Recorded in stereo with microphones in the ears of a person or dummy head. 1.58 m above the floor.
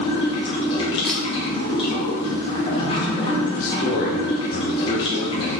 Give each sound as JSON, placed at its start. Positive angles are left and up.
{"t": 0.0, "sound": "running water", "side_deg": 30, "distance_m": 1.0}
{"t": 1.0, "sound": "a camera shutter", "side_deg": 5, "distance_m": 0.9}
{"t": 3.6, "sound": "a man speaking", "side_deg": 50, "distance_m": 0.8}